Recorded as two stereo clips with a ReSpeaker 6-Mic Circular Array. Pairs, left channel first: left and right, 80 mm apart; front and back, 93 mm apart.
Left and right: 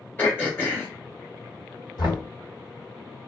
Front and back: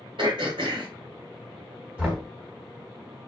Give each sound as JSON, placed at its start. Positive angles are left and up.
{"t": 0.2, "sound": "throat clearing", "azimuth_deg": 155, "distance_m": 1.1}
{"t": 2.0, "sound": "knocking", "azimuth_deg": 105, "distance_m": 1.3}